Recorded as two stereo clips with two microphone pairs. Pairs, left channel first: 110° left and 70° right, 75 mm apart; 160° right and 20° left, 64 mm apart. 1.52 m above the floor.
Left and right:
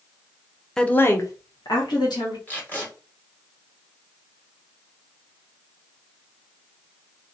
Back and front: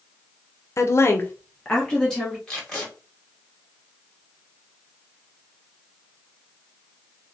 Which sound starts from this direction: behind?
A woman speaking, at 0.8 s.